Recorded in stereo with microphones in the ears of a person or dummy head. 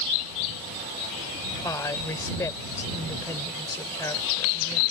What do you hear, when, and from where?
1.6 s a woman speaking: 15° left (ahead or behind)